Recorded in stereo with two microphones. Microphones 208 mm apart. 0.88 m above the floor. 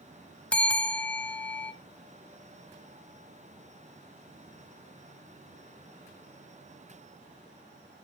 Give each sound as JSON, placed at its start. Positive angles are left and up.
{"t": 0.5, "sound": "a bell", "side_deg": 5, "distance_m": 0.7}